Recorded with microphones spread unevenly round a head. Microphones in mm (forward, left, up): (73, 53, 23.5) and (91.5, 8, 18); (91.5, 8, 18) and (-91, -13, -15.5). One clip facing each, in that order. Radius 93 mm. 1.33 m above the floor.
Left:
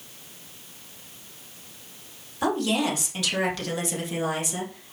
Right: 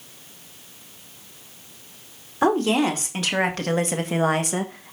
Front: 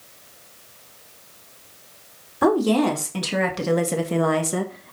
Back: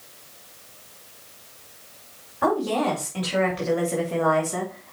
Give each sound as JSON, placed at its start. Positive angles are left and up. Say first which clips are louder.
{"t": 2.4, "sound": "a woman speaking", "louder": "right 5 dB, front 5 dB", "azimuth_deg": -20, "distance_m": 2.5}